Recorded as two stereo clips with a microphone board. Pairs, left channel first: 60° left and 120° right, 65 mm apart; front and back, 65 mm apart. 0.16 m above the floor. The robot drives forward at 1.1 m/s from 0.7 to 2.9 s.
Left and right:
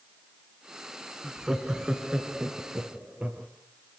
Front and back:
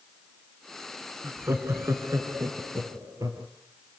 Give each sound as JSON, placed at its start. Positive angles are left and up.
{"t": 1.2, "sound": "laughter", "azimuth_deg": 155, "distance_m": 1.6}